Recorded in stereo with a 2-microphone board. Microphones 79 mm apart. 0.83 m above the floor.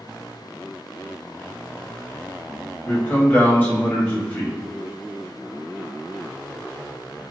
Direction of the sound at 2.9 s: 20° left (ahead or behind).